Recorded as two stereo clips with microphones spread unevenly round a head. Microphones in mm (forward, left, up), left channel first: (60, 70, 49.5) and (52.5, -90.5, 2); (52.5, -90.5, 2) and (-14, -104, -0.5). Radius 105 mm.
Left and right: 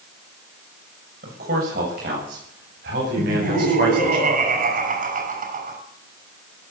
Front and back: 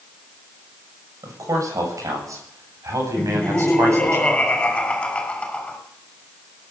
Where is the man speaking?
140° right, 6.5 m; by 4.2 s 130° right, 9.5 m.